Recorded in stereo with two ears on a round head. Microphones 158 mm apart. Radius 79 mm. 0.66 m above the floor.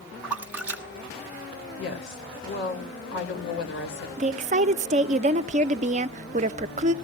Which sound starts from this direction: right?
A woman speaking, at 4.2 s.